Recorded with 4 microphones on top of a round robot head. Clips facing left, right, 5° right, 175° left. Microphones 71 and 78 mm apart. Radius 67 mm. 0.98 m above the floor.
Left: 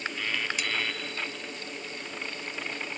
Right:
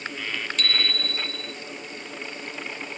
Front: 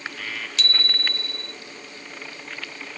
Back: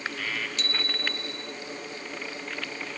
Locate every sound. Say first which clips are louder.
0.6 s a bicycle bell: right 3 dB, front 3 dB; 10° left